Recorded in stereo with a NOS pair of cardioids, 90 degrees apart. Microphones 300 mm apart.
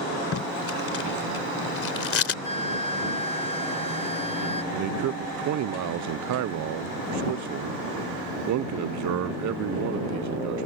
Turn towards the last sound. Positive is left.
turn(degrees=-65)